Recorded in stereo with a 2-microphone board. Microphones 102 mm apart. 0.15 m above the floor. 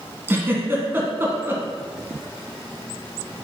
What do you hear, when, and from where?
0.3 s a giggle: 25° right (ahead or behind), 1.6 m